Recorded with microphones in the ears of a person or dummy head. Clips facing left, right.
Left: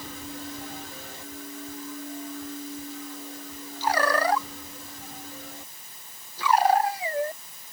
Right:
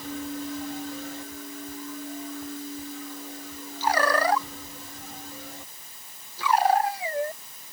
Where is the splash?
No splash in this recording.